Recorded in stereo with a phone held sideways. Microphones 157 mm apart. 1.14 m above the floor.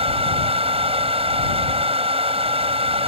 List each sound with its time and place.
0.0 s a fan: 40° right (ahead or behind)